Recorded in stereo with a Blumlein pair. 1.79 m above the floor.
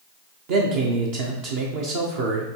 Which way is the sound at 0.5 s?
45° right.